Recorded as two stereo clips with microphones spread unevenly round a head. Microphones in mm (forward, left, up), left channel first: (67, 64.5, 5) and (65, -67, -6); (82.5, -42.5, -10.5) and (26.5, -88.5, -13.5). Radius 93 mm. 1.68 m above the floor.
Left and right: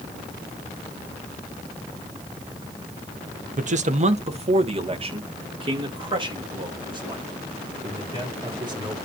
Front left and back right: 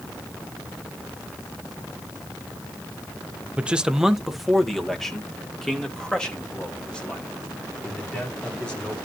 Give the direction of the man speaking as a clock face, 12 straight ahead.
2 o'clock.